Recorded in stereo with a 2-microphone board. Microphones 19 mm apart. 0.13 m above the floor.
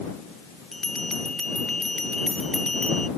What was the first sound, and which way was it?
A bell, 25° left (ahead or behind).